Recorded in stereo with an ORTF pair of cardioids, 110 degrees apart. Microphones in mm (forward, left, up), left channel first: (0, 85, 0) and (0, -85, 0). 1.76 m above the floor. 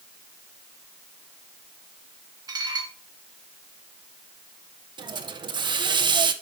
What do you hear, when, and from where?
2.5 s dishes clattering: 25° right, 2.5 m
5.0 s a hiss: 25° right, 1.6 m